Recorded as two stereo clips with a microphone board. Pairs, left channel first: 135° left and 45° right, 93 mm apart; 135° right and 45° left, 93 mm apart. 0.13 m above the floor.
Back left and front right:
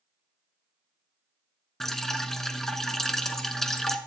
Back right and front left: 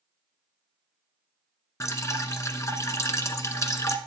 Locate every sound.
1.8 s dripping: 145° right, 0.8 m